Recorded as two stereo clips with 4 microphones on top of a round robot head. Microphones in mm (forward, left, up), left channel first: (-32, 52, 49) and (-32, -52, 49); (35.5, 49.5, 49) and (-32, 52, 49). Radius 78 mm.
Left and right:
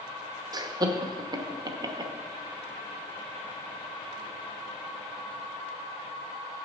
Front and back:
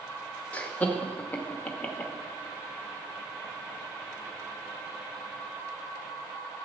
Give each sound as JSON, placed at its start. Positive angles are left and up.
{"t": 0.5, "sound": "laughter", "azimuth_deg": -65, "distance_m": 1.0}